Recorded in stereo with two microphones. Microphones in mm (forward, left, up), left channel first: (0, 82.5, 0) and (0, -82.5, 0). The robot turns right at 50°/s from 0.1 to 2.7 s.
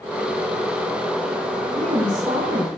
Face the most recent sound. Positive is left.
turn(degrees=-70)